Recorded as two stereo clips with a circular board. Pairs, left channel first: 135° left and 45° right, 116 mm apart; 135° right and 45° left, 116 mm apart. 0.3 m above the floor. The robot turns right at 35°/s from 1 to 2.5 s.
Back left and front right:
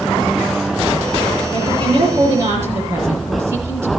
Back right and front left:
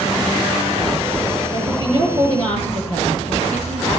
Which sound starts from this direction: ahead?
A woman speaking, at 1.5 s.